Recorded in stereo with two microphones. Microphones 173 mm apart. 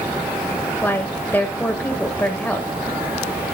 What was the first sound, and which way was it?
A woman speaking, 10° left (ahead or behind).